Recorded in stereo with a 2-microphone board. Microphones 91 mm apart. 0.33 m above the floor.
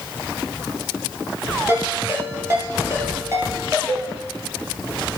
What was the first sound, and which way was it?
A ringtone, 30° right (ahead or behind).